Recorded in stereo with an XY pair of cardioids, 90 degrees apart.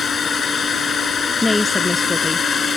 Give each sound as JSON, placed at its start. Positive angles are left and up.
{"t": 0.0, "sound": "a drone", "azimuth_deg": 55}
{"t": 1.4, "sound": "a woman speaking", "azimuth_deg": 25}